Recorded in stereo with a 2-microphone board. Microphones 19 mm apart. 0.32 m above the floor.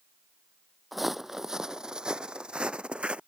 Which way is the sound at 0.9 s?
5° right (ahead or behind).